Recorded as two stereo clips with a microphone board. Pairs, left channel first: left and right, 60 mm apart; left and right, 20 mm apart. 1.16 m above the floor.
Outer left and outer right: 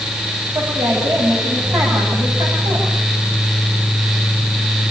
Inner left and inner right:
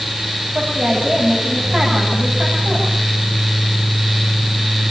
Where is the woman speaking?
75° right (ahead or behind), 9.5 m.